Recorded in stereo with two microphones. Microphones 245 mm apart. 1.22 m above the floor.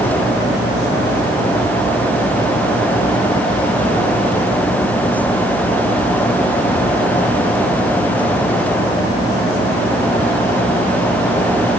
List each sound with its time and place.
Only background noise.